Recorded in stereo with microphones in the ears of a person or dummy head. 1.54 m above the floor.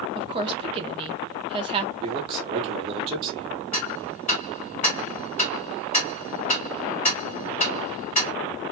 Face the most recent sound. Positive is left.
turn(degrees=35)  # may be behind; listen again after turning